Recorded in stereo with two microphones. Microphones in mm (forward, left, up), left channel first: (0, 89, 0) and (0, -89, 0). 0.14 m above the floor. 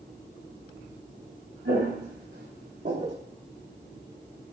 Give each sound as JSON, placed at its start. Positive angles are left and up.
{"t": 1.6, "sound": "footsteps", "side_deg": -60, "distance_m": 1.1}